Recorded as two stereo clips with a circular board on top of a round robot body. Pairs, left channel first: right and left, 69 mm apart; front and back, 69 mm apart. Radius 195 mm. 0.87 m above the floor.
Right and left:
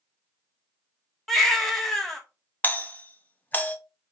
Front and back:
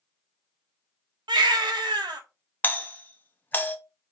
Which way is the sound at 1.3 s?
175° right.